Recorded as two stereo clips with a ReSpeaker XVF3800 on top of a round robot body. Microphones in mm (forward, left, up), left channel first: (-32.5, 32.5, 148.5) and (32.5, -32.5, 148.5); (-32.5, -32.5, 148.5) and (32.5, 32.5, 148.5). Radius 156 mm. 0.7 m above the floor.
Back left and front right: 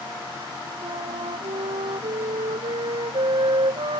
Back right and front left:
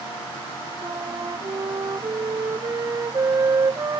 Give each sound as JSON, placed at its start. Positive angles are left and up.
{"t": 0.8, "sound": "a flute", "azimuth_deg": -10}